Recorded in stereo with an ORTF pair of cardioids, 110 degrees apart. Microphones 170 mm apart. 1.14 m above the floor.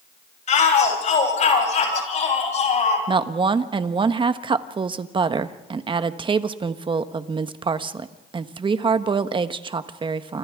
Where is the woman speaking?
30° right, 1.3 m.